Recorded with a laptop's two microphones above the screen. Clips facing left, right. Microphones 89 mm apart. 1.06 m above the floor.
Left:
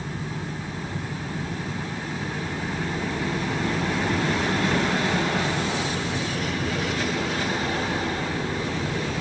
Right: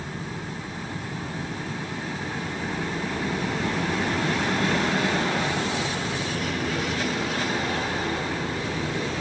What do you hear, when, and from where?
0.0 s a fan: 65° left (ahead or behind), 3 m